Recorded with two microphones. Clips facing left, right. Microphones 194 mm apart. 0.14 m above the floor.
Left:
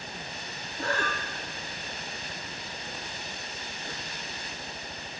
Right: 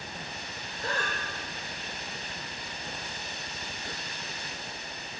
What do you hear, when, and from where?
0.8 s breathing: 75° left (ahead or behind), 4.5 m